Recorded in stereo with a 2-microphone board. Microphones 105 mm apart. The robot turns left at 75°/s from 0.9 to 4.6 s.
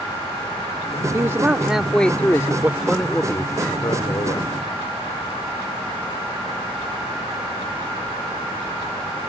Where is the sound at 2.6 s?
155° right; by 4.5 s 65° left.